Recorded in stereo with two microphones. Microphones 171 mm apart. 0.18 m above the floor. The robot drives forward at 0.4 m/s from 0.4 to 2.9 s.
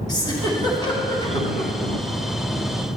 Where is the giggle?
25° left (ahead or behind), 2.0 m.